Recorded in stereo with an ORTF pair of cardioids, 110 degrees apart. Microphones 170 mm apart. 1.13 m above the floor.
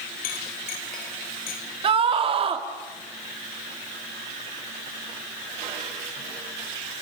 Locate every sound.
0.2 s a clink: 65° left, 3.5 m
1.8 s a scream: 35° right, 3 m